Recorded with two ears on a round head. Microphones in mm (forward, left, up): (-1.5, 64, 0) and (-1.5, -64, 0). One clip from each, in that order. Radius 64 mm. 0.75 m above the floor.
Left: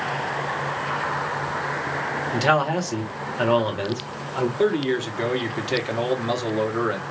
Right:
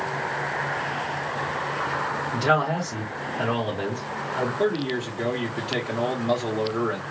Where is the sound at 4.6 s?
50° left (ahead or behind), 1.6 m.